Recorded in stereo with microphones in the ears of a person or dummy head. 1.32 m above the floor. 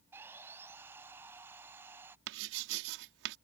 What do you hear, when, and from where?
0.1 s sawing: 10° right (ahead or behind)
2.3 s writing: 60° right (ahead or behind)